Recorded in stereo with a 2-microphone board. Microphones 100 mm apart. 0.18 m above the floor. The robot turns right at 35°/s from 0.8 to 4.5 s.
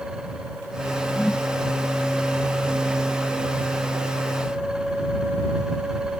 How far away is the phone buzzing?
No phone buzzing in this recording.